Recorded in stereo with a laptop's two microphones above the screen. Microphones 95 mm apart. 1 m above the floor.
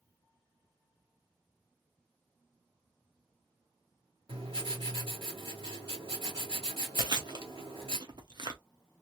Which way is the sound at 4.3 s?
80° right.